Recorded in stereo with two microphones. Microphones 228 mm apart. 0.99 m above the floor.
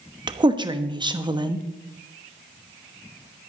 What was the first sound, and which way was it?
A woman speaking, 20° right (ahead or behind).